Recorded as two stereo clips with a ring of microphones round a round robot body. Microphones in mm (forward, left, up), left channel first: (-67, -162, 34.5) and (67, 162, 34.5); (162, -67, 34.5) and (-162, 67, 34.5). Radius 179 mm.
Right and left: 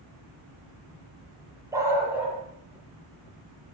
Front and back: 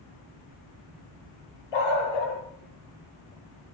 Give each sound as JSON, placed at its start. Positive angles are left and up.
{"t": 1.7, "sound": "a dog barking", "azimuth_deg": -15, "distance_m": 8.0}